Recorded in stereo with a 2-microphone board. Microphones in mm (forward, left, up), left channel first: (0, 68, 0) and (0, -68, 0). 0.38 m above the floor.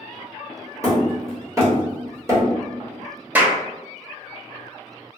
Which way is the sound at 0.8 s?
20° right (ahead or behind).